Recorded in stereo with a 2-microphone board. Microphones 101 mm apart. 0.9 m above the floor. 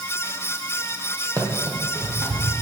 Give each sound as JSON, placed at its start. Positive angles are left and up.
{"t": 1.4, "sound": "running footsteps", "side_deg": -35, "distance_m": 1.1}